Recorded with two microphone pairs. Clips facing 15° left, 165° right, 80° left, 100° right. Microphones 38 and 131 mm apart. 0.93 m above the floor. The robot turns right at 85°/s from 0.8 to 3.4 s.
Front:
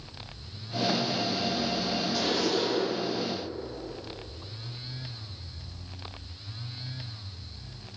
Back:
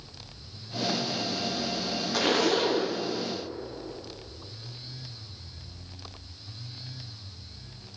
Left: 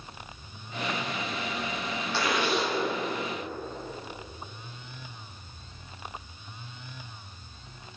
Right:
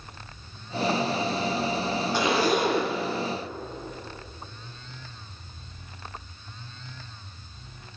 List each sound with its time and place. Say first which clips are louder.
2.1 s a zipper: back 5 dB, right 4 dB; 175° right, 0.9 m; by 3.0 s 105° right, 0.9 m